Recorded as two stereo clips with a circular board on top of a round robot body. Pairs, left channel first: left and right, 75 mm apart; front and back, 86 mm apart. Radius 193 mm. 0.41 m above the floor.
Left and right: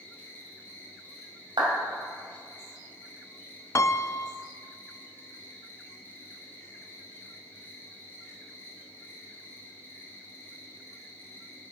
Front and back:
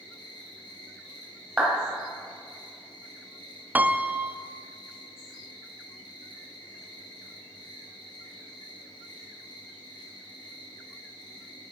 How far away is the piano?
About 0.6 m.